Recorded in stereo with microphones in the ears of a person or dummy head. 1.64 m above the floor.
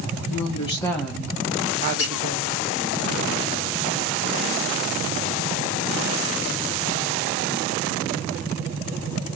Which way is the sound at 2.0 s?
70° left (ahead or behind).